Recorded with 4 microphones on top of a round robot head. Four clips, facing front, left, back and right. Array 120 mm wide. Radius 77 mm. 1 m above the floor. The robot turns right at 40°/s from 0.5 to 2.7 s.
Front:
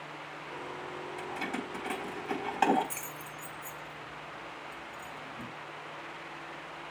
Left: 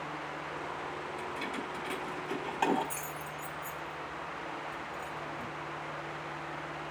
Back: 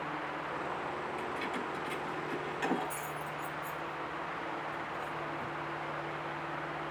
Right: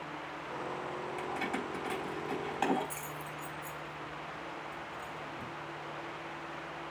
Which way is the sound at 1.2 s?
60° right.